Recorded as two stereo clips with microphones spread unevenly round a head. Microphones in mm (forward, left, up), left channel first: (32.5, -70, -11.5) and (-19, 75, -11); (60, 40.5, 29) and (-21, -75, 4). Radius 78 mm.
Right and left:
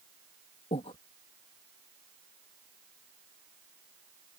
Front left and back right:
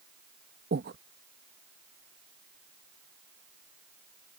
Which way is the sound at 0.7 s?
125° right.